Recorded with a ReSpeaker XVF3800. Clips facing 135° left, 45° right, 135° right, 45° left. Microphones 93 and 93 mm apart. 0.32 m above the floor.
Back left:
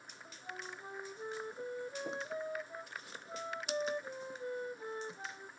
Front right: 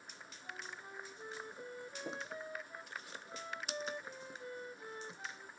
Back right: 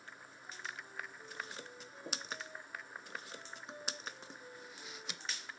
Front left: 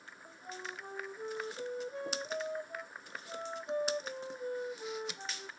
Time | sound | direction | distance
0.2 | a flute | 70° left | ?